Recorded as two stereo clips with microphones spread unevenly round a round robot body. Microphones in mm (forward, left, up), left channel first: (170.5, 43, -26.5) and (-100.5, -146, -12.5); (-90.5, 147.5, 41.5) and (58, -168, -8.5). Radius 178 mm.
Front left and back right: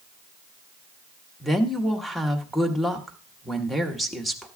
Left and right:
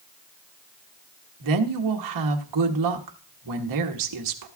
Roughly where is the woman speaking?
Ahead right.